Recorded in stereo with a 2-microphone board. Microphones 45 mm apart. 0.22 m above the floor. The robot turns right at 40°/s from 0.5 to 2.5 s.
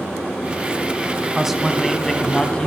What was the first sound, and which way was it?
A man speaking, 15° right.